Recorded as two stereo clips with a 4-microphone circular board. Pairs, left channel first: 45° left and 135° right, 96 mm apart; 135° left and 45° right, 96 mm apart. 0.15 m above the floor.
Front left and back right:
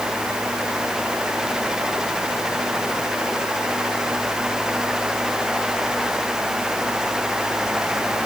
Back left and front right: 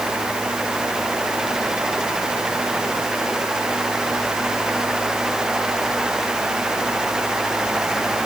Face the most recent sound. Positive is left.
No sound to turn to.